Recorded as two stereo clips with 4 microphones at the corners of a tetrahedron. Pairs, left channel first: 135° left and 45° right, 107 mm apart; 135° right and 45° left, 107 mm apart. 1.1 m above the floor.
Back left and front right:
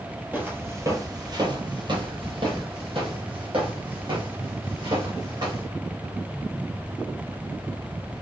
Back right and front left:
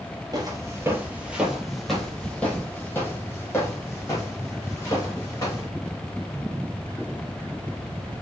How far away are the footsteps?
About 1.3 m.